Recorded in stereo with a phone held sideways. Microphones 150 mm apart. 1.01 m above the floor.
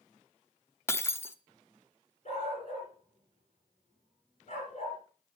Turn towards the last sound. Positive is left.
turn(degrees=50)  # may be behind; listen again after turning